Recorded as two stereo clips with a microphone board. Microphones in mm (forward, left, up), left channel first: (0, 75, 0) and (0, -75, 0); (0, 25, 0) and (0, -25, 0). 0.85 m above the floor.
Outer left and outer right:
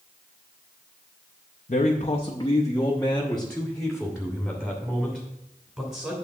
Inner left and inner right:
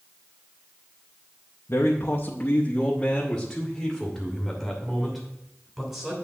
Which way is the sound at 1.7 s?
55° left (ahead or behind).